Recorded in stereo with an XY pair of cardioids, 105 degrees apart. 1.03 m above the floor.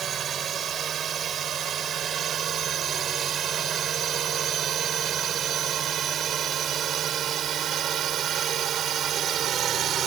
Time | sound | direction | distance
0.0 | a drone | 55° right | ?